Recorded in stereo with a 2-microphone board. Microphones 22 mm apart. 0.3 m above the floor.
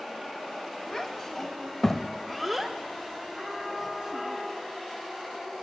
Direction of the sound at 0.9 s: 20° left (ahead or behind).